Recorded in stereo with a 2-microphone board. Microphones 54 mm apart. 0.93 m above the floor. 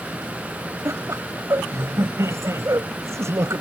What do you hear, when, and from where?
0.8 s laughter: 70° right (ahead or behind)